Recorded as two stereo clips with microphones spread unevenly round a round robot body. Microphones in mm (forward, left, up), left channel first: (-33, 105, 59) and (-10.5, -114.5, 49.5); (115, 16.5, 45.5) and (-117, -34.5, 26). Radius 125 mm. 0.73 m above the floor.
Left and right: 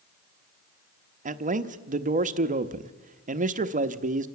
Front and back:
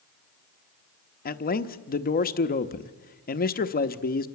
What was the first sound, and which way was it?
A man speaking, 40° right.